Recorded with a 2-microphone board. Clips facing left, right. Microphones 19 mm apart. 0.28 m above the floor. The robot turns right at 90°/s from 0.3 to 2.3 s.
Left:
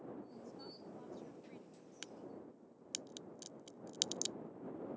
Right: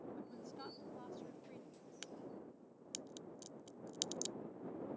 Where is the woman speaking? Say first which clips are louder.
Right 1 dB; 105° right; by 1.9 s 40° left.